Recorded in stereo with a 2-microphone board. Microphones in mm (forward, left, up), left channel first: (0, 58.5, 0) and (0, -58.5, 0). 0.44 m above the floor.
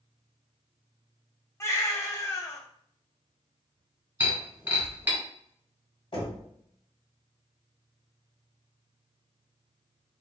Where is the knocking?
40° left (ahead or behind), 1.7 m.